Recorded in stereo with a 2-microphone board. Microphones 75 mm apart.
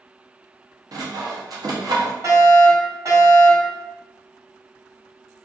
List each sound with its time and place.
0.9 s sawing: 55° right (ahead or behind), 0.6 m
2.2 s a fire alarm: 50° right (ahead or behind), 1.8 m